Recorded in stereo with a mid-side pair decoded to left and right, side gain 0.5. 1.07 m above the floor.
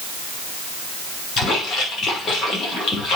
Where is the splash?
45° left, 5.5 m.